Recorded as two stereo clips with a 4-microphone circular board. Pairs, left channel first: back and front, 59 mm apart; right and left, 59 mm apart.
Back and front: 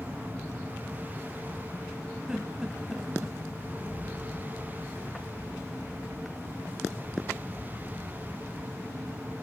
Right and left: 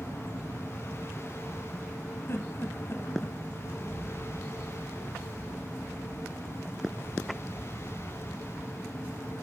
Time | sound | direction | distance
2.3 | a giggle | 75° right | 0.9 m
3.6 | a rattle | 20° right | 6 m